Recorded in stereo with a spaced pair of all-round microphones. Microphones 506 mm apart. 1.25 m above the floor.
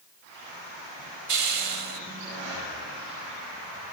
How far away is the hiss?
About 0.8 m.